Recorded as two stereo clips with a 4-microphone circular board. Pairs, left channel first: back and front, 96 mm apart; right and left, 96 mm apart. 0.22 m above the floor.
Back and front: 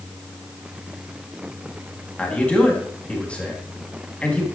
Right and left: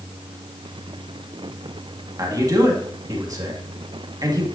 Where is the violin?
No violin in this recording.